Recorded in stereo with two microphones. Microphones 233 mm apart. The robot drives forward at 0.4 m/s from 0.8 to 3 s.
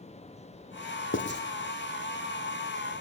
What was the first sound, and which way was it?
Writing, 55° left (ahead or behind).